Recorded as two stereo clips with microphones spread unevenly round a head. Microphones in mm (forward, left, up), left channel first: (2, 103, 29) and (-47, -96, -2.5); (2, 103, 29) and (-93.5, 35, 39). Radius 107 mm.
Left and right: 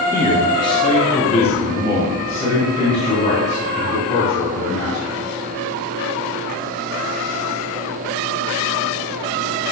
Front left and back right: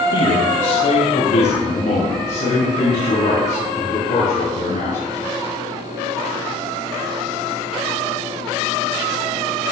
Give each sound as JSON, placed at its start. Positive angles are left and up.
{"t": 0.1, "sound": "a man speaking", "azimuth_deg": -5, "distance_m": 1.6}